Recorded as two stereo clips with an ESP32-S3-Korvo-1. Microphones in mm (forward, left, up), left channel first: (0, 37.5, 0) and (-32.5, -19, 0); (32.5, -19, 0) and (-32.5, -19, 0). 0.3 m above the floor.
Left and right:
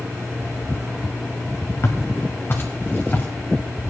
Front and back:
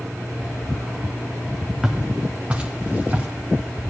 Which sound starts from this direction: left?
Footsteps, at 1.8 s.